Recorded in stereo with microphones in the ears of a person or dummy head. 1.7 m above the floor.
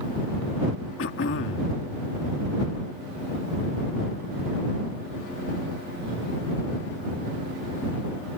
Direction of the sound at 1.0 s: 65° left (ahead or behind).